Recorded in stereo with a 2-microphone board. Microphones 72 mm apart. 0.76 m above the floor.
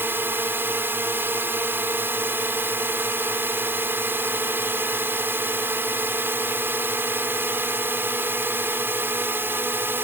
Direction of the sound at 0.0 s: 30° right (ahead or behind).